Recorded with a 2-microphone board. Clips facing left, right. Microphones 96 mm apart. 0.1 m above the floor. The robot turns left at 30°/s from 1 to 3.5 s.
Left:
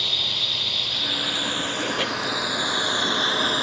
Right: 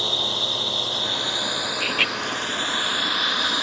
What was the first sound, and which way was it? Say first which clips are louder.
A drone: right 6 dB; 145° right.